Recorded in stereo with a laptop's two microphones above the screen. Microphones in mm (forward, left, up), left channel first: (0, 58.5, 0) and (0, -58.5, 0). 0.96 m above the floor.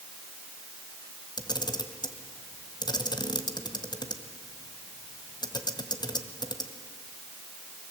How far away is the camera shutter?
About 1.9 m.